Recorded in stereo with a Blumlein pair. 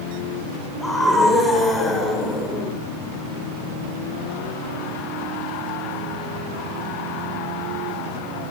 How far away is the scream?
About 9 m.